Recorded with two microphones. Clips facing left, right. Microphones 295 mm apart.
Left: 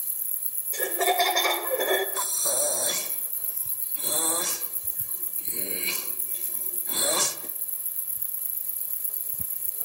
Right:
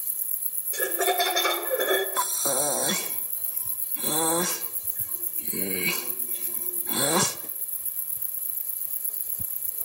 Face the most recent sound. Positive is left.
turn(degrees=-70)  # may be behind; listen again after turning